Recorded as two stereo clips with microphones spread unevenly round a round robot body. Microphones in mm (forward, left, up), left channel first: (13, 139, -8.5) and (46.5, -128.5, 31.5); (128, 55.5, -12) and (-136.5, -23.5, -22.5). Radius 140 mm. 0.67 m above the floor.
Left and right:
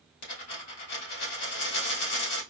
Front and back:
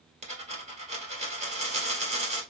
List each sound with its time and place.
0.2 s a dropped coin: 130° left, 1.6 m